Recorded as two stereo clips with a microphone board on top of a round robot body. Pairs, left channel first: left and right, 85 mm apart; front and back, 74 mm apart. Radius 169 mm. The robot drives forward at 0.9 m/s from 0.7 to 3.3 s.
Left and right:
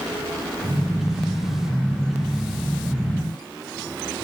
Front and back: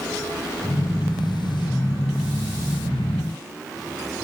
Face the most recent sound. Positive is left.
No sound to turn to.